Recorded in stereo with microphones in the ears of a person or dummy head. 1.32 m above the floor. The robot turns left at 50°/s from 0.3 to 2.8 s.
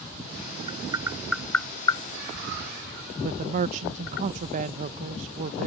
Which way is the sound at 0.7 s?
30° right (ahead or behind).